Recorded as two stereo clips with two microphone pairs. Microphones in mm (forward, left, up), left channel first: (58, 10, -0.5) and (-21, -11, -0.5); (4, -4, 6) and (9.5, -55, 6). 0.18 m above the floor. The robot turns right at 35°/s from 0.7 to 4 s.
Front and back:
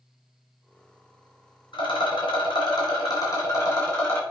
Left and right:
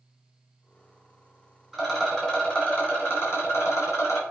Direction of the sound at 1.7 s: 5° right.